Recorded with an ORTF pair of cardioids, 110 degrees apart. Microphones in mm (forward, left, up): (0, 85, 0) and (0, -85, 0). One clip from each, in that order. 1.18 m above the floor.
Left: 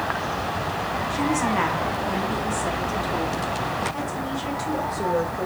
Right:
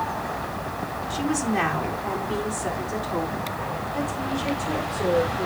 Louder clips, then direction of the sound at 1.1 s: Left 2 dB; 5° right.